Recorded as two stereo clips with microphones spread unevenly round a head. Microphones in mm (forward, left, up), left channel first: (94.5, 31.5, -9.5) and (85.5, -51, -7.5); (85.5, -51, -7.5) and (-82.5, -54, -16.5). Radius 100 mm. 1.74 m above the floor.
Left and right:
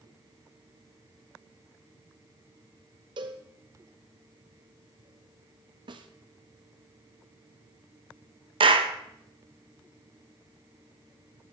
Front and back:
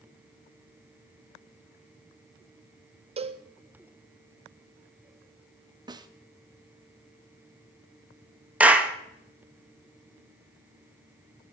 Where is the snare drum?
115° right, 0.8 m.